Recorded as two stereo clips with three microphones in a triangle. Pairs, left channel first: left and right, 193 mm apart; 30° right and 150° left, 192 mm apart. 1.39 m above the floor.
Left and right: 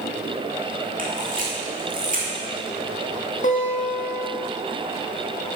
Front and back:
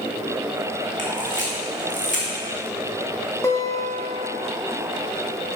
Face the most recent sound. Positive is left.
turn(degrees=45)